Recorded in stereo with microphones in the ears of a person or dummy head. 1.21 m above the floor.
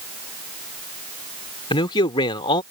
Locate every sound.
1.7 s a man speaking: 25° left (ahead or behind)